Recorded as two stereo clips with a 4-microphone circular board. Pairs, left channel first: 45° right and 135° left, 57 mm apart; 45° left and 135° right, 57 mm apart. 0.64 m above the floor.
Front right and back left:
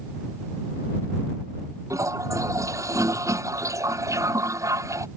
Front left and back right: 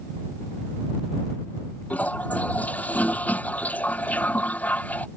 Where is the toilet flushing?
110° left.